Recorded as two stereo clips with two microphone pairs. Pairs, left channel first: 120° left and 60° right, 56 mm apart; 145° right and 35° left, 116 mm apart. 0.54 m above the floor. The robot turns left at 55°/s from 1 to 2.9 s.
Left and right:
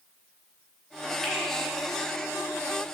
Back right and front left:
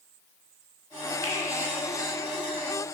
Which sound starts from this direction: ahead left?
A finger snap, at 1.2 s.